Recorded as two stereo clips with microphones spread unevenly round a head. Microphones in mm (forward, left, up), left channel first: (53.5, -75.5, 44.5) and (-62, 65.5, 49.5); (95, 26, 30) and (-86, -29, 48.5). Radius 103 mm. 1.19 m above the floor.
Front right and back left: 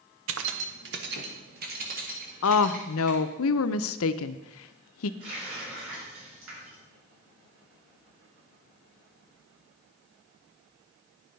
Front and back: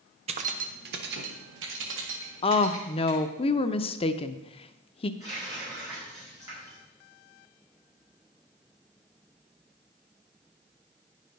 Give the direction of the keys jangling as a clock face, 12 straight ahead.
7 o'clock.